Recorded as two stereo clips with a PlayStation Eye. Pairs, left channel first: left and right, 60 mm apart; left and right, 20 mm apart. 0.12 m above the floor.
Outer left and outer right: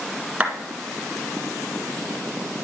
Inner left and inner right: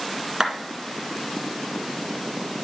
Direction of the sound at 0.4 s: 20° right (ahead or behind).